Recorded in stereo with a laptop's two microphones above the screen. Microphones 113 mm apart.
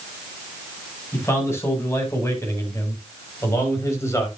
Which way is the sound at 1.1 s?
25° left (ahead or behind).